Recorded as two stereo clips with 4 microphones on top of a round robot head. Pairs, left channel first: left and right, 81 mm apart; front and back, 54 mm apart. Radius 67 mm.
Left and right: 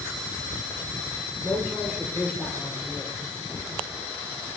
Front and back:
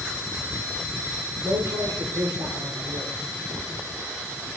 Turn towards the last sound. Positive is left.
turn(degrees=175)